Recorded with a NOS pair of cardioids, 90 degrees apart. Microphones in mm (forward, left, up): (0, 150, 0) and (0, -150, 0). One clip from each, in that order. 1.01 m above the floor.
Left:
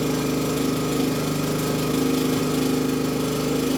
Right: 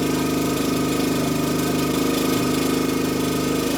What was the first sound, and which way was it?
An engine running, 35° right.